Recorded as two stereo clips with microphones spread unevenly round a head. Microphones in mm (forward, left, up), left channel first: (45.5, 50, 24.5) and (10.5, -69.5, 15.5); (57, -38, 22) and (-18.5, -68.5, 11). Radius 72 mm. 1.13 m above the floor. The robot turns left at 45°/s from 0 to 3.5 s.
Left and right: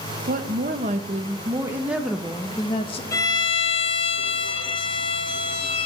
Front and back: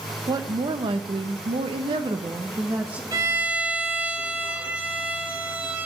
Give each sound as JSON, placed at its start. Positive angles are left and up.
{"t": 0.3, "sound": "a woman speaking", "azimuth_deg": -115, "distance_m": 1.0}
{"t": 3.1, "sound": "a violin", "azimuth_deg": 135, "distance_m": 0.6}